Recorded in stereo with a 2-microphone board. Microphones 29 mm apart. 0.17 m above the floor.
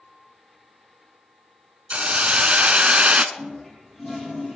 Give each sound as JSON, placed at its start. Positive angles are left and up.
{"t": 1.9, "sound": "a hiss", "side_deg": -45, "distance_m": 0.6}
{"t": 3.4, "sound": "a toilet flushing", "side_deg": 15, "distance_m": 4.5}